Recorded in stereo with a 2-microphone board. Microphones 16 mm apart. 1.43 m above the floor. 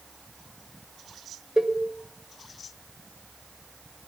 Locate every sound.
1.6 s a cowbell: 40° right (ahead or behind), 0.9 m